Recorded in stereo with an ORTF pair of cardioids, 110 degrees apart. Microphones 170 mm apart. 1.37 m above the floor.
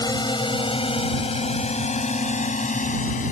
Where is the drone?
25° left; by 3.3 s 50° left.